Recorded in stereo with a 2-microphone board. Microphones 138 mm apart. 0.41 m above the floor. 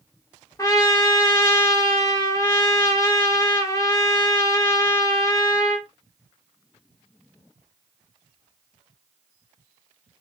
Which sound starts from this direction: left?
A trumpet, at 0.6 s.